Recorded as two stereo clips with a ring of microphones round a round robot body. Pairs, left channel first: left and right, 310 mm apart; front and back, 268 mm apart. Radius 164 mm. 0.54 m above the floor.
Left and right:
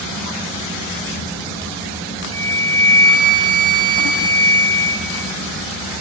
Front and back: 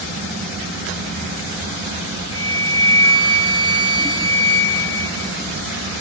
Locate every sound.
2.3 s a flute: 15° right, 2 m